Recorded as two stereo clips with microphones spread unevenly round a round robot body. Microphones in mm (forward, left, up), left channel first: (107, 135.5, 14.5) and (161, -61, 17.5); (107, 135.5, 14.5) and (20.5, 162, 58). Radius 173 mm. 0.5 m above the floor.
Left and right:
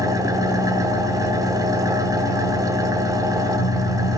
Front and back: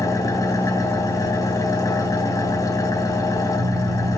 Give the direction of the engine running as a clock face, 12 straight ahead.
12 o'clock.